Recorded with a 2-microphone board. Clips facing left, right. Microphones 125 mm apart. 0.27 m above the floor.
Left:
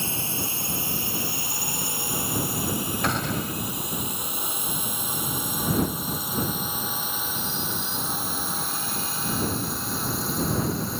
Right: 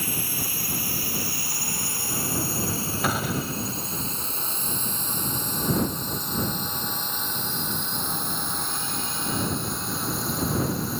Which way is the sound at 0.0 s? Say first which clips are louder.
Left 1 dB; 25° left (ahead or behind).